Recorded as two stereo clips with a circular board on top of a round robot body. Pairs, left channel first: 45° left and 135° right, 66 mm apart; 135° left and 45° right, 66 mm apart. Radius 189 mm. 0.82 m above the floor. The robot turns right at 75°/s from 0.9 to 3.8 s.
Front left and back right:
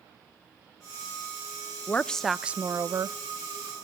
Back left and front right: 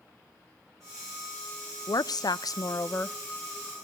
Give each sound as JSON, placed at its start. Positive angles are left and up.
{"t": 1.9, "sound": "a woman speaking", "azimuth_deg": 105, "distance_m": 0.6}